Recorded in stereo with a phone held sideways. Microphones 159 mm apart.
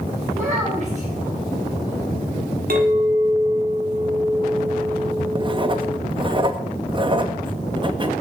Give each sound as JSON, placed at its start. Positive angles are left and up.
{"t": 0.3, "sound": "a child speaking", "side_deg": -50, "distance_m": 3.0}
{"t": 2.7, "sound": "a clink", "side_deg": -65, "distance_m": 1.7}
{"t": 5.3, "sound": "writing", "side_deg": -30, "distance_m": 0.7}